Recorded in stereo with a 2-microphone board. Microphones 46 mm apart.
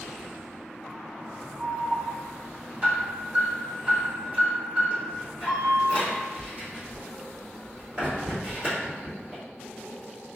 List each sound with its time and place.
1.6 s an alarm: 30° right (ahead or behind), 2.0 m